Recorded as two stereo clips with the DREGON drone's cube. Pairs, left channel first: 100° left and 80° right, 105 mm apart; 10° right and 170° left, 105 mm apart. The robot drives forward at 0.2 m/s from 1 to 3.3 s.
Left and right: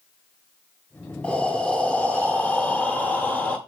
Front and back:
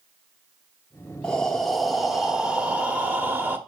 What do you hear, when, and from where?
1.2 s breathing: 50° left, 0.9 m; by 3.6 s 140° left, 0.9 m